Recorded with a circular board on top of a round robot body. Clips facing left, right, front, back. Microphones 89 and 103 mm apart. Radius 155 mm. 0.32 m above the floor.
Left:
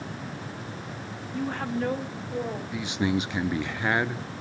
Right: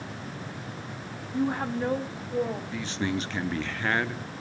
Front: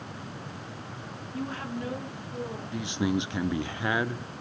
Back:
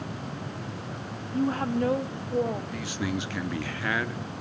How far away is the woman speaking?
About 1.0 m.